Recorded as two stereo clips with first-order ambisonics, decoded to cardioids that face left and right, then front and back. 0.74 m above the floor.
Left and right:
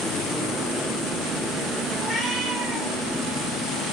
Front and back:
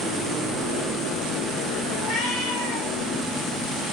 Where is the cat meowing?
5° left, 1.6 m.